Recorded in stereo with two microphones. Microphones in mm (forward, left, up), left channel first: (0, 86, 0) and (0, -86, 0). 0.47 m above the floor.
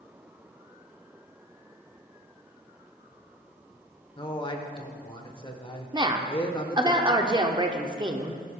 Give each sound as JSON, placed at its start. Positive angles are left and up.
{"t": 4.2, "sound": "a man speaking", "side_deg": 30, "distance_m": 1.2}
{"t": 5.9, "sound": "a woman speaking", "side_deg": -25, "distance_m": 0.8}